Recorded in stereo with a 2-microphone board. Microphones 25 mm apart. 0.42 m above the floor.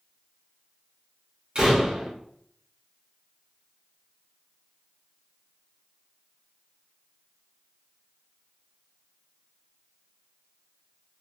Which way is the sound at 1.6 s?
35° right (ahead or behind).